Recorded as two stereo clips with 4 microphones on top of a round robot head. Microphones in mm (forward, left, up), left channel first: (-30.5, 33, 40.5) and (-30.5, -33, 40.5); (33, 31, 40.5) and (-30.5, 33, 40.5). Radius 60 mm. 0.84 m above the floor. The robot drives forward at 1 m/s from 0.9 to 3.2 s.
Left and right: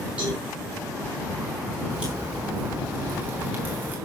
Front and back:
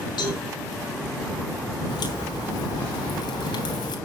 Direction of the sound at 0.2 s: 15° right.